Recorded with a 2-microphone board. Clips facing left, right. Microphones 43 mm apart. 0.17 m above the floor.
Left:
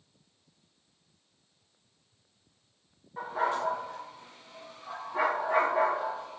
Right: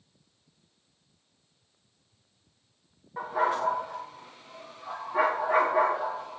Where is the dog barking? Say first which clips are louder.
Right 3 dB; 20° right (ahead or behind), 7 m.